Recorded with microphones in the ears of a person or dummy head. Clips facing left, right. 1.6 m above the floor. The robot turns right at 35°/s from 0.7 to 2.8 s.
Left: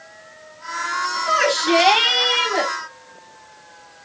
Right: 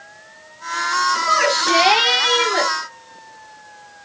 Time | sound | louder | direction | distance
1.3 | a shout | left 3 dB | 165° left | 5.5 m